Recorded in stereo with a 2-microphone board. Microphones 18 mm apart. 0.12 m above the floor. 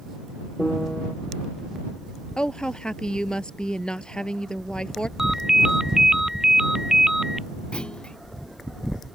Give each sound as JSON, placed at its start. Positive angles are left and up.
{"t": 0.6, "sound": "a piano", "side_deg": 40}
{"t": 2.4, "sound": "a woman speaking", "side_deg": 55}
{"t": 5.2, "sound": "a ringtone", "side_deg": -30}
{"t": 7.7, "sound": "a clunk", "side_deg": 60}